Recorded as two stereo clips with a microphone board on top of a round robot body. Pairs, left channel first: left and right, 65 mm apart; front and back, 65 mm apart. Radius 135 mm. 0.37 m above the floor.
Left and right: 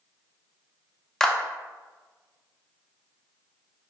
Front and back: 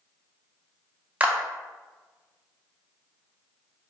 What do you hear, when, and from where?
1.2 s a clap: 160° left, 0.7 m